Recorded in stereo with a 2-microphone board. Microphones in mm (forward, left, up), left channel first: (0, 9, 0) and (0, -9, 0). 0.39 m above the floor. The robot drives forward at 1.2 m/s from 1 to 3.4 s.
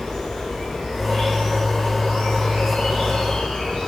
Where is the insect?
50° left (ahead or behind), 3 m; by 3.9 s 65° left (ahead or behind), 2.5 m.